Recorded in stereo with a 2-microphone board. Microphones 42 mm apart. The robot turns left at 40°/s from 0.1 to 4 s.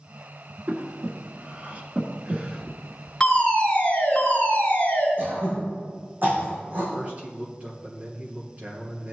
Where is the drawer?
I don't hear a drawer.